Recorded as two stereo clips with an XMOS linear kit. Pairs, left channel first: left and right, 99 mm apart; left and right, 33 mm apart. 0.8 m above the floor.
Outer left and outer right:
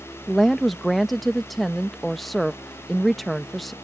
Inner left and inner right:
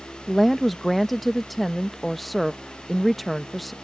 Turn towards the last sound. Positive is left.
turn(degrees=0)  # may be behind; listen again after turning